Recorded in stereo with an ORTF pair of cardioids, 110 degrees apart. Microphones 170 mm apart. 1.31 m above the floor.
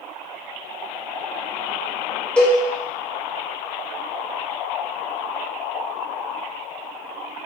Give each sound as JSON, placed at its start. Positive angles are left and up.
{"t": 2.4, "sound": "a cowbell", "azimuth_deg": 5, "distance_m": 1.0}